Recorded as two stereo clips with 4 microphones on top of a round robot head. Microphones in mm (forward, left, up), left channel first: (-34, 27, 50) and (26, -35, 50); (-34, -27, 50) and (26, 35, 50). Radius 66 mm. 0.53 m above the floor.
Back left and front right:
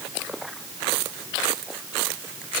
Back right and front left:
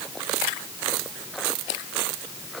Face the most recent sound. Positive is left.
No sound to turn to.